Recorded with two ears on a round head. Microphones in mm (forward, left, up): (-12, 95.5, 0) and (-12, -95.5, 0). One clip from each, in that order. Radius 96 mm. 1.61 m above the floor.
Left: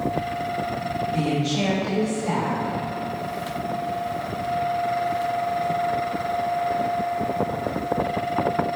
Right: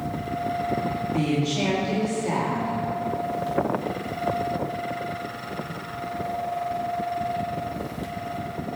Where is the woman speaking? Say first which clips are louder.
Even; 75° left (ahead or behind), 2.5 m.